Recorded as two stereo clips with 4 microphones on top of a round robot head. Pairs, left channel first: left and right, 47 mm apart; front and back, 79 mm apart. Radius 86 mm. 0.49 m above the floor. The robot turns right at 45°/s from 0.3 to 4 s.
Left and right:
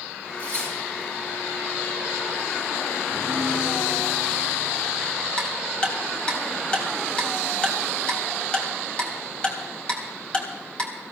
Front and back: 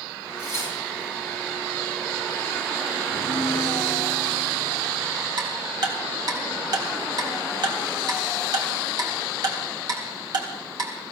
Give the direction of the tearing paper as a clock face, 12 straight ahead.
2 o'clock.